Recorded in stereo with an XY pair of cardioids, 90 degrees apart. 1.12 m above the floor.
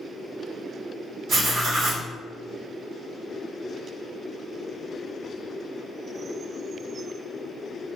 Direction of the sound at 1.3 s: 60° right.